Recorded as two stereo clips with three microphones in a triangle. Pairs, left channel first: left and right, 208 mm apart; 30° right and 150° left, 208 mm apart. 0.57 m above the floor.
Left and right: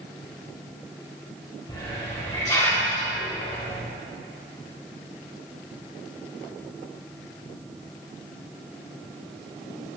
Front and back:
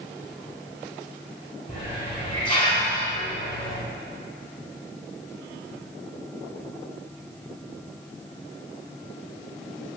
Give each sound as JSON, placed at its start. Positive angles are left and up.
{"t": 1.7, "sound": "a hiss", "azimuth_deg": 20, "distance_m": 4.5}